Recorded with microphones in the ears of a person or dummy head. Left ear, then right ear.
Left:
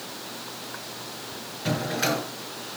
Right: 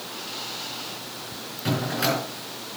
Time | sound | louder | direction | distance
1.6 | a drawer | right 1 dB | 15° right (ahead or behind) | 8 m